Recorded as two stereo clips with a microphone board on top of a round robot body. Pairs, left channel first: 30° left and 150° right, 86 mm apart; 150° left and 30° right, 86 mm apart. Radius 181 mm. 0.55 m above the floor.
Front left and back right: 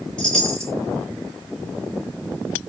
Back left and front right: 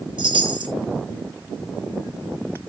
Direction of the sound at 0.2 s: 50° right.